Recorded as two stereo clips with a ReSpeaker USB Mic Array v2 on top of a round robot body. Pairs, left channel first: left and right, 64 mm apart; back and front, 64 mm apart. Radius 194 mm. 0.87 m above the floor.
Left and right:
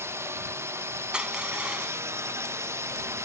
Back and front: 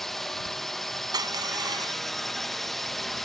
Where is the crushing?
10° right.